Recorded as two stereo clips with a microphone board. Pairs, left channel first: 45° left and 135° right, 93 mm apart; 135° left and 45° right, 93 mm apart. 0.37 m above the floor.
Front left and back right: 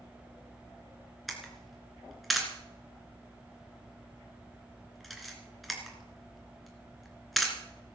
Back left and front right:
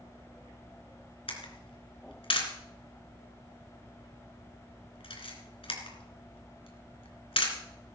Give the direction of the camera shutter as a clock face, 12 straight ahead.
8 o'clock.